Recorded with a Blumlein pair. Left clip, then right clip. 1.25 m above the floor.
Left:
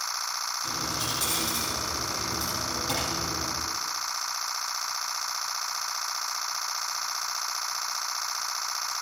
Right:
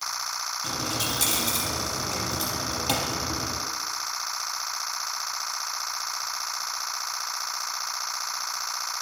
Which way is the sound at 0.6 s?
65° right.